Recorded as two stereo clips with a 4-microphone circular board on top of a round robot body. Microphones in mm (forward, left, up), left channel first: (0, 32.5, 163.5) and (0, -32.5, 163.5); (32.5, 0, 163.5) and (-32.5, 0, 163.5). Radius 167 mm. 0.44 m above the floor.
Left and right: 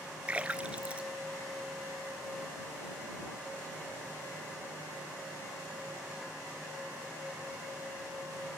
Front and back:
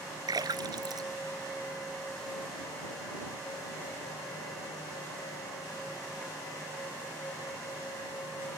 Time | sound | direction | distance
0.3 | a splash | 165° right | ?